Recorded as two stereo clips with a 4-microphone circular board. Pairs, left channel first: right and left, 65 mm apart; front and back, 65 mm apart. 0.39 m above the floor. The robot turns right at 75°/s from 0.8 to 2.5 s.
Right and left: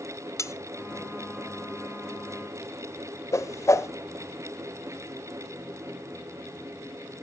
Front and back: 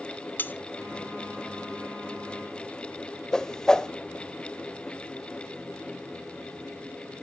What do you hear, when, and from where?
0.4 s cutlery clinking: 60° right, 1.0 m
3.3 s a whoosh: 80° right, 0.7 m